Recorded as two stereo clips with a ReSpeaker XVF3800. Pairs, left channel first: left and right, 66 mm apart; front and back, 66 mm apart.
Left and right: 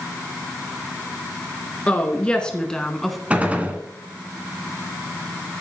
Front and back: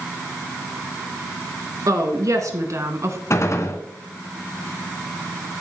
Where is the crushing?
No crushing in this recording.